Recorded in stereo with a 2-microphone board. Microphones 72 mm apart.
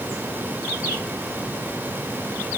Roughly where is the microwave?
No microwave in this recording.